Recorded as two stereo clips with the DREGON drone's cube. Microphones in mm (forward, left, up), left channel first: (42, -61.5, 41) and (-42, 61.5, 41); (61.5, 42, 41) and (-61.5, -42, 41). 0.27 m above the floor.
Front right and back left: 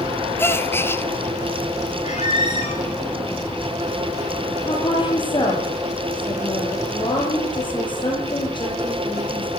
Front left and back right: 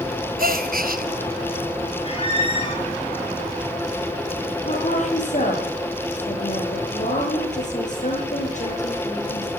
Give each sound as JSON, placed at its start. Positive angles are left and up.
{"t": 0.4, "sound": "a gasp", "azimuth_deg": -130, "distance_m": 1.5}
{"t": 2.0, "sound": "a squeak", "azimuth_deg": -15, "distance_m": 6.0}
{"t": 4.6, "sound": "a woman speaking", "azimuth_deg": 0, "distance_m": 8.5}